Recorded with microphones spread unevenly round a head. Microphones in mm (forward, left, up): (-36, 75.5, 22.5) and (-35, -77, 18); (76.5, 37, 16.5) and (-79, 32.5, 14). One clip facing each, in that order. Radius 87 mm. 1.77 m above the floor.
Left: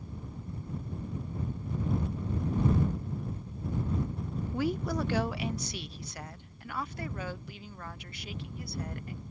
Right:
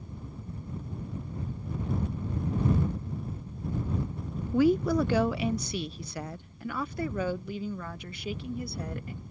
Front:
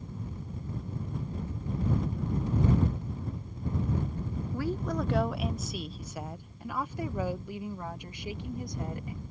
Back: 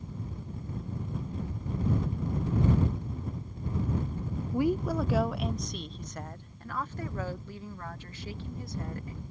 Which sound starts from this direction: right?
A woman speaking, at 4.5 s.